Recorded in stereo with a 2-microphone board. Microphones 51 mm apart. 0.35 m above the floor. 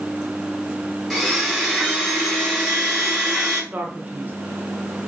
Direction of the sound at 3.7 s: 40° right (ahead or behind).